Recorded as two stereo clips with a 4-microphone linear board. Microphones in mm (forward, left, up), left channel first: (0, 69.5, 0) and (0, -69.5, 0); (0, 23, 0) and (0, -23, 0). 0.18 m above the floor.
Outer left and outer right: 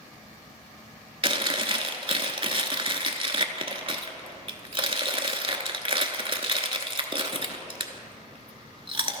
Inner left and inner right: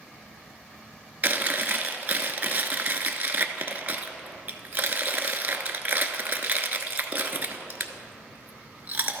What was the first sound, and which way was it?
Chewing, 40° right (ahead or behind).